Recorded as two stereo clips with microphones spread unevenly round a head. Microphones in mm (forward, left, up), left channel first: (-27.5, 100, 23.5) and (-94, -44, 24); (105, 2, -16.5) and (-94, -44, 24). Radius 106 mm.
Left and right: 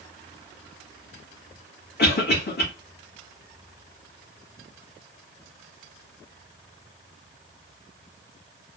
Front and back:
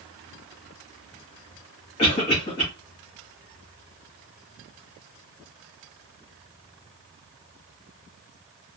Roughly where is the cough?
Left.